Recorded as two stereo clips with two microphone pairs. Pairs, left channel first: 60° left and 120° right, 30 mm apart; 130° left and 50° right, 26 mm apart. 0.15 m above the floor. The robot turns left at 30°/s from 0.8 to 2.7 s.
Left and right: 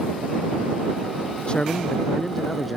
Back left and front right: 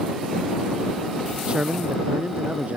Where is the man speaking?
5° left; by 2.8 s 30° right.